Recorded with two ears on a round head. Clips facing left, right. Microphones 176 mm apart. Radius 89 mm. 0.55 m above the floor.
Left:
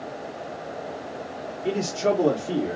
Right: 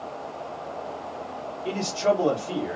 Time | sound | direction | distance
1.6 | a man speaking | 20° left (ahead or behind) | 1.2 m